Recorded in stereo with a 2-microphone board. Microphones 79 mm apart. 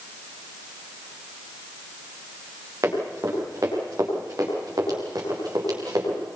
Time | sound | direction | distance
2.8 | running footsteps | 45° right (ahead or behind) | 9.5 m